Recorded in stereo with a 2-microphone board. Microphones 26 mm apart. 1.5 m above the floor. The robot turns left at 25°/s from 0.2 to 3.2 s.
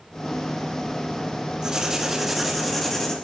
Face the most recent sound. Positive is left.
turn(degrees=165)